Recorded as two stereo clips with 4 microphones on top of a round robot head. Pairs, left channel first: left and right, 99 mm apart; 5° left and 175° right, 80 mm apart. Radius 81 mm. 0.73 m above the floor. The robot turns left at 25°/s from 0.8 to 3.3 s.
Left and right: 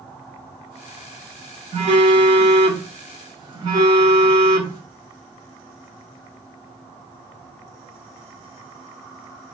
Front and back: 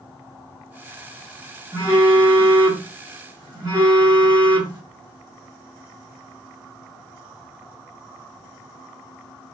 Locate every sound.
1.7 s a phone buzzing: 95° right, 1.5 m; by 4.8 s 135° right, 1.5 m